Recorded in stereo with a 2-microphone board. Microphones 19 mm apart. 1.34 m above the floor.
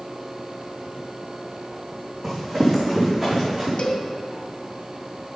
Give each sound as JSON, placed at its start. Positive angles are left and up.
{"t": 2.2, "sound": "running footsteps", "side_deg": -15, "distance_m": 5.0}
{"t": 3.8, "sound": "a cowbell", "side_deg": 60, "distance_m": 2.0}